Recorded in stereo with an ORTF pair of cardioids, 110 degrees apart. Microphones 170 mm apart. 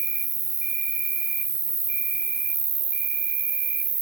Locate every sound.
0.0 s an insect: 50° right, 0.9 m